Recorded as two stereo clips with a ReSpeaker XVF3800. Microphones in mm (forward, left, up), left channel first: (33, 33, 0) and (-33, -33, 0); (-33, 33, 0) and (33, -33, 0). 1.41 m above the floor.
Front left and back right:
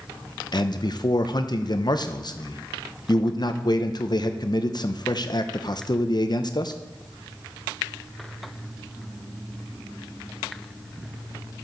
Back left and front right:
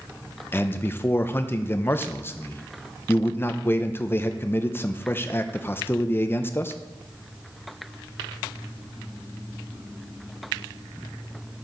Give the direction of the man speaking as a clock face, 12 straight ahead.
10 o'clock.